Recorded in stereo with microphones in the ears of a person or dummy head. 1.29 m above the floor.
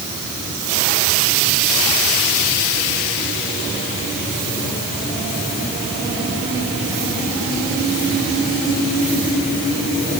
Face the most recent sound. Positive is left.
No sound to turn to.